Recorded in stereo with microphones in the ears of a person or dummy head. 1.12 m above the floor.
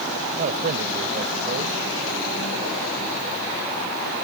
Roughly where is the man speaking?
Right.